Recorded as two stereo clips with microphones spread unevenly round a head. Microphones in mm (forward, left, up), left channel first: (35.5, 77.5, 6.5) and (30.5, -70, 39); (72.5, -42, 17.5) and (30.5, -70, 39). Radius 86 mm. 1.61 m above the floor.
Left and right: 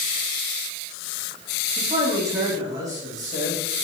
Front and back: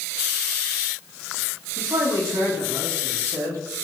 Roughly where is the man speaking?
Behind.